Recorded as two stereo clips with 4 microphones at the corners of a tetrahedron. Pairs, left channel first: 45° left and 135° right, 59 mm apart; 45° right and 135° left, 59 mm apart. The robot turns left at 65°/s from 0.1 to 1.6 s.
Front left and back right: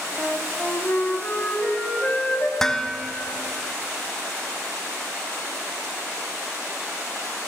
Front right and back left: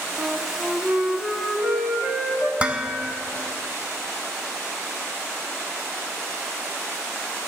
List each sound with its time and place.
0.2 s a flute: 160° left, 1.1 m; by 2.5 s 65° left, 1.1 m
2.6 s dishes clattering: 115° left, 0.7 m